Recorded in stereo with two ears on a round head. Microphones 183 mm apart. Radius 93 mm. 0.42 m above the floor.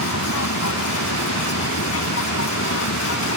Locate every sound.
0.0 s an aircraft: 70° left (ahead or behind); by 3.4 s 65° left (ahead or behind)